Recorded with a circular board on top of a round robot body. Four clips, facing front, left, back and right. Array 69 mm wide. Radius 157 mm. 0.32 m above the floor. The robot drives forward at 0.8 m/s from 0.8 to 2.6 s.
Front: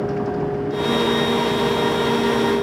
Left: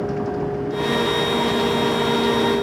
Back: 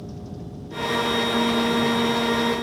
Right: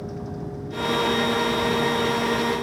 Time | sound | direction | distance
0.0 | a vehicle | 35° left | ?